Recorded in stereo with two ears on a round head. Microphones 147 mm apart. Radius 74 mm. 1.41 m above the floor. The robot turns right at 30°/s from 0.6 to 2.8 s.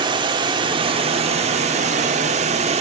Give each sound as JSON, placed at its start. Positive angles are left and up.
{"t": 0.0, "sound": "running water", "azimuth_deg": -135, "distance_m": 1.2}